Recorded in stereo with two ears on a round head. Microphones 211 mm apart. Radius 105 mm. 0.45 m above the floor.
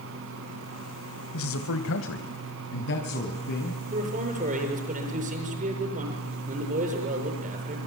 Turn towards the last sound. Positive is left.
turn(degrees=-35)  # may be behind; listen again after turning